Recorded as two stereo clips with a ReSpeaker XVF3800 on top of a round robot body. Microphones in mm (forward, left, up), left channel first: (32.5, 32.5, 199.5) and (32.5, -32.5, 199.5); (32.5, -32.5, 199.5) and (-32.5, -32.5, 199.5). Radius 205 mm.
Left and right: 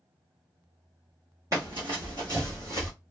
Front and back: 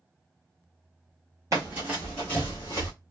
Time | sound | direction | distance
1.5 | running footsteps | 140° right | 0.6 m